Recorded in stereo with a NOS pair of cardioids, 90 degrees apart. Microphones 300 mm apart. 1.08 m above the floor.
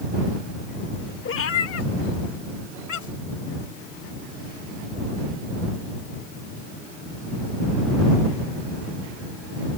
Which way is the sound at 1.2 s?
45° left.